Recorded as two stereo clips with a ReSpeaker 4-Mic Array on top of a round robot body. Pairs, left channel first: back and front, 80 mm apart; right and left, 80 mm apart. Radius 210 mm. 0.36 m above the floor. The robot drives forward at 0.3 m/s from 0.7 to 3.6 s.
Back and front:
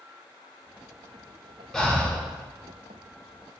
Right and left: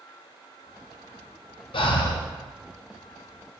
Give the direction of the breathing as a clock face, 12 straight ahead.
3 o'clock.